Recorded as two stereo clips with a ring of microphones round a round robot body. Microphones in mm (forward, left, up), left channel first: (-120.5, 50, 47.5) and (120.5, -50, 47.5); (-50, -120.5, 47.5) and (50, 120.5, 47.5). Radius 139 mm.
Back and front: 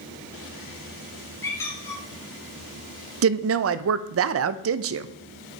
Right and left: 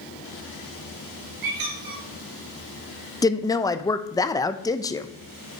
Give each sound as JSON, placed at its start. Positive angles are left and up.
{"t": 1.4, "sound": "a squeak", "azimuth_deg": 75, "distance_m": 2.5}
{"t": 3.2, "sound": "a woman speaking", "azimuth_deg": -40, "distance_m": 0.6}